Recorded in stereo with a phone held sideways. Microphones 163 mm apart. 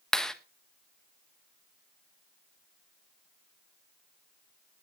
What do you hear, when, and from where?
0.1 s a clap: 5° left (ahead or behind), 1.4 m